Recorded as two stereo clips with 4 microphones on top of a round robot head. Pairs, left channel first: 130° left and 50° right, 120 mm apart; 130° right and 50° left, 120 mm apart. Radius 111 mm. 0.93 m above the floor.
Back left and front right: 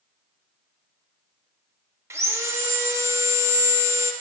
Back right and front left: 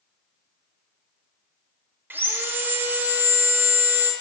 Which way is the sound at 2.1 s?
5° right.